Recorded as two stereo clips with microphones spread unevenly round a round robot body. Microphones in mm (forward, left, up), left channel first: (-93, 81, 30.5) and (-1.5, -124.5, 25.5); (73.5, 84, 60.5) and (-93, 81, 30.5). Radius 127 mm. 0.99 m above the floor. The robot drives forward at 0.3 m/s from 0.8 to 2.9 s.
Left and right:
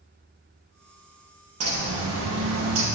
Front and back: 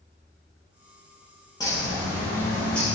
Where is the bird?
75° right, 1.6 m; by 2.9 s 90° right, 1.5 m.